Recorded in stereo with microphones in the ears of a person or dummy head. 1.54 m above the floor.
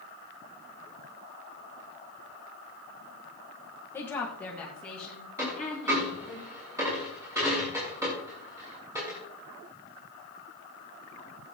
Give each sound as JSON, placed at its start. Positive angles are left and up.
{"t": 3.9, "sound": "a woman speaking", "side_deg": 10, "distance_m": 1.3}
{"t": 5.4, "sound": "a dropped coin", "side_deg": -15, "distance_m": 6.0}